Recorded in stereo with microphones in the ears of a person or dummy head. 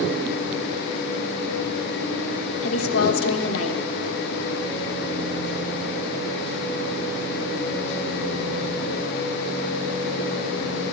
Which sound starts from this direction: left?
A woman speaking, at 2.6 s.